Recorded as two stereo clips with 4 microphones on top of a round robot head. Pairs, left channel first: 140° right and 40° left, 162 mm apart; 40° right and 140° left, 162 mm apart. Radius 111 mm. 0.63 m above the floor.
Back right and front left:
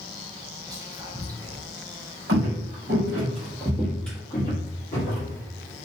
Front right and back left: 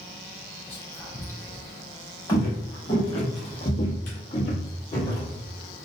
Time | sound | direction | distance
0.7 | whispering | 15° left | 0.5 m
2.3 | footsteps | 25° left | 1.1 m